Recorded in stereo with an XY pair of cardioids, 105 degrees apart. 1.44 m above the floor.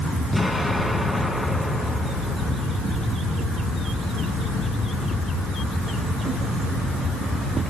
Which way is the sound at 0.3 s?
5° left.